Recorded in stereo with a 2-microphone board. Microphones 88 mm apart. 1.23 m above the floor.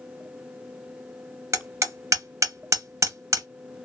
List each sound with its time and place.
1.5 s hammering: 35° right (ahead or behind), 0.7 m